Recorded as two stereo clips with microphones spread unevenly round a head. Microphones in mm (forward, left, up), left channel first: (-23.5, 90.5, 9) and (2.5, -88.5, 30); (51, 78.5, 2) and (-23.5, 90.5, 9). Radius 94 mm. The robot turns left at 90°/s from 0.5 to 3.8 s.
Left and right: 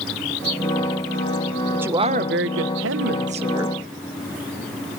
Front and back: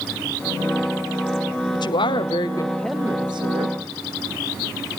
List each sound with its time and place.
1.7 s a woman speaking: 10° left, 1.0 m; by 3.8 s 175° right, 1.0 m